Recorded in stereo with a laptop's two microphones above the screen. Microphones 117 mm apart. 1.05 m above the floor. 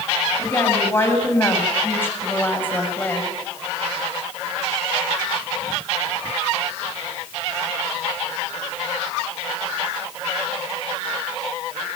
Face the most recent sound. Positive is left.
turn(degrees=15)  # may be behind; listen again after turning